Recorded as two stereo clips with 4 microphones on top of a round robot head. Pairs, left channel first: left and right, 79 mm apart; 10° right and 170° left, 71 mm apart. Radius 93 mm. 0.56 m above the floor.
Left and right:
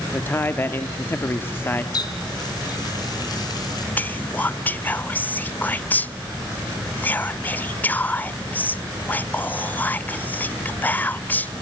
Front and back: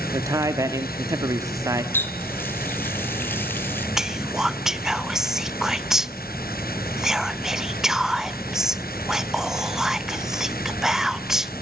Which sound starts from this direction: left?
Whispering, at 4.0 s.